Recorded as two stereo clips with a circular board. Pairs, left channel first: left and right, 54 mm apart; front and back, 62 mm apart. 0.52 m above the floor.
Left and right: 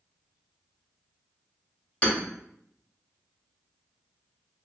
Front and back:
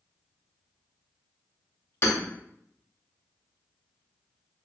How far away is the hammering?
About 1.1 m.